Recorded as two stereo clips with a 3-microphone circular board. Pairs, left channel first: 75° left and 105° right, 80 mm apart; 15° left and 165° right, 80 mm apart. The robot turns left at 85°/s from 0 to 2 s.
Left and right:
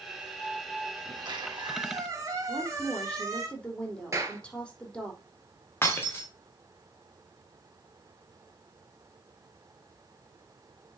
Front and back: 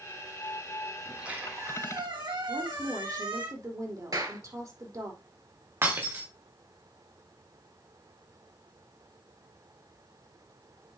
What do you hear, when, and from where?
1.1 s a squeak: 70° right, 3.5 m; by 3.5 s 150° right, 3.5 m
2.5 s a woman speaking: 150° left, 4.5 m
4.1 s a clap: 145° right, 1.9 m
5.8 s breaking glass: 135° left, 4 m